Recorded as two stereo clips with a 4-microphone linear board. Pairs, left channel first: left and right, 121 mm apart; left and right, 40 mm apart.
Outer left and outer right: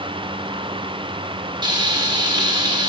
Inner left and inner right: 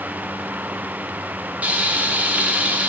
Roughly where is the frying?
Right.